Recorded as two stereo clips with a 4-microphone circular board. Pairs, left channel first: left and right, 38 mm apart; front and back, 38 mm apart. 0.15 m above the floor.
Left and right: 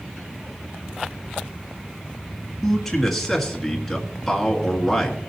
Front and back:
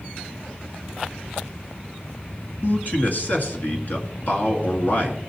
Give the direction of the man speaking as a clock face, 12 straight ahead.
12 o'clock.